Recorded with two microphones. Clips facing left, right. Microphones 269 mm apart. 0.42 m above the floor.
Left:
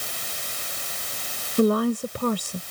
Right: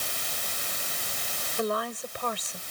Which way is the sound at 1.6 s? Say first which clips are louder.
Left 11 dB; 50° left (ahead or behind).